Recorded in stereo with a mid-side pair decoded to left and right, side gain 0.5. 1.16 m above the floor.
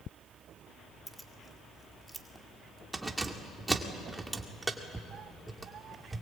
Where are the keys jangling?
15° right, 2 m.